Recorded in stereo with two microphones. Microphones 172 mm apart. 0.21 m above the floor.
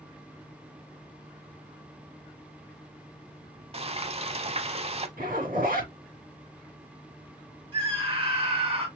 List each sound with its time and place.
3.7 s frying: 35° right (ahead or behind), 0.5 m
5.2 s a zipper: 55° right (ahead or behind), 3 m
7.7 s a scream: 35° right (ahead or behind), 2.0 m